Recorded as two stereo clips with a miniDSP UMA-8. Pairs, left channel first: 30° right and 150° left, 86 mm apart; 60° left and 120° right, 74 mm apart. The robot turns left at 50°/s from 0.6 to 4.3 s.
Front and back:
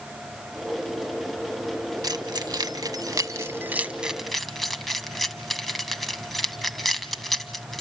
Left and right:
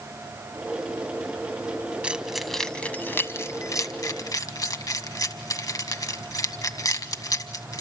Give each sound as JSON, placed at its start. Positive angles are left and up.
{"t": 2.0, "sound": "keys jangling", "azimuth_deg": 170, "distance_m": 1.5}